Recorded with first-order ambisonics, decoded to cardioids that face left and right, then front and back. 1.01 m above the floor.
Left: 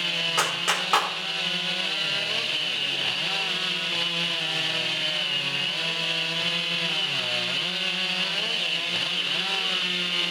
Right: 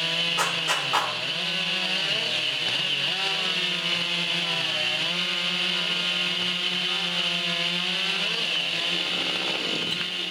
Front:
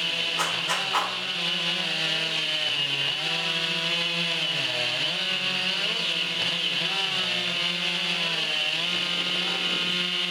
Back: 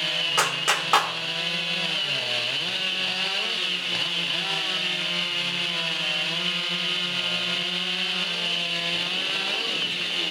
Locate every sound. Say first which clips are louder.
0.4 s a clap: even, back 3 dB; 150° left, 3 m